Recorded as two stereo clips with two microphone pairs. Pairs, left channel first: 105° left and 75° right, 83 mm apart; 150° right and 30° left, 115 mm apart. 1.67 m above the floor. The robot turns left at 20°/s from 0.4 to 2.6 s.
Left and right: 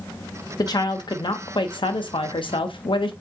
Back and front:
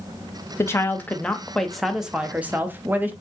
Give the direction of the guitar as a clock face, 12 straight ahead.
I don't hear a guitar.